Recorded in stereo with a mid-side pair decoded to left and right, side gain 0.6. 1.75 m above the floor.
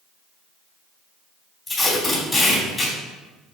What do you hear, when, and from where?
1.7 s tape being pulled: 25° left, 3 m